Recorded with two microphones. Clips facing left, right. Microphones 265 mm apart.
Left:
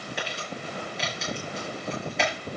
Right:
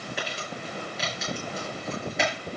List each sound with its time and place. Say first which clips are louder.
0.2 s crumpling: even; centre (ahead or behind), 6.5 m